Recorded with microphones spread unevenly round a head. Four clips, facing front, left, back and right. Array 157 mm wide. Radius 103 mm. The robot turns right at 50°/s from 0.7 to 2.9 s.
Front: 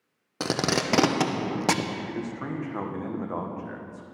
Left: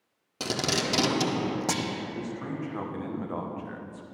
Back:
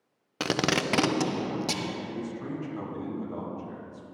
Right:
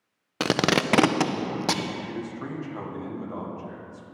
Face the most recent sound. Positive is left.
turn(degrees=5)